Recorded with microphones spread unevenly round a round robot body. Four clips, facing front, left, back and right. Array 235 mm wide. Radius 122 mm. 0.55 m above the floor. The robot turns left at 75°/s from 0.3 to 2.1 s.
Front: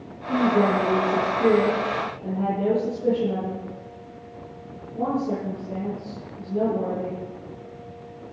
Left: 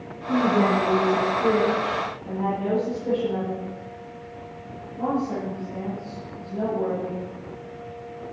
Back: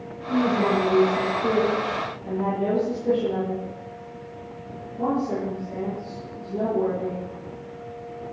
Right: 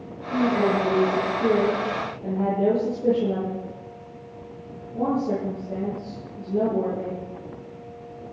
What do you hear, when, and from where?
0.3 s a woman speaking: 70° left, 8.5 m; by 7.2 s 65° right, 8.5 m